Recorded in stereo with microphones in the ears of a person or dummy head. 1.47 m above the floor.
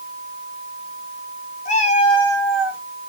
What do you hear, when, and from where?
1.6 s a cat meowing: 40° left (ahead or behind), 1.7 m; by 2.8 s 15° right (ahead or behind), 1.1 m